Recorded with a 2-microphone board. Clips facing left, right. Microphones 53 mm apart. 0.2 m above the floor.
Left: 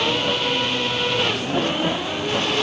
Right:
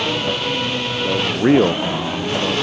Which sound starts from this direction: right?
A man speaking, at 1.0 s.